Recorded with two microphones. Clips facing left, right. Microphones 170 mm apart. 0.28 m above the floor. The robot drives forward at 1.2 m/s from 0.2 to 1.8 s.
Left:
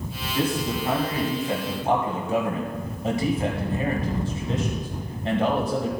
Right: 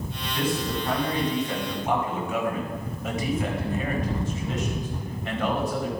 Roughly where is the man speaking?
Left.